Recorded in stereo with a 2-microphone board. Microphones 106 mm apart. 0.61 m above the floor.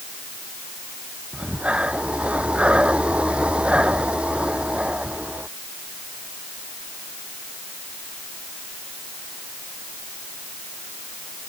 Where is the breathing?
10° right (ahead or behind).